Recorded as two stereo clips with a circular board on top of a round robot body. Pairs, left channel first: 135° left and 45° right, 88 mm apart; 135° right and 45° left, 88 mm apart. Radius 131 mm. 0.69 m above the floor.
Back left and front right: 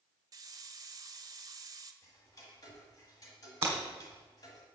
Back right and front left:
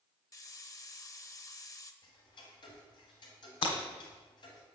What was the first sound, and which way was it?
A hiss, 90° right.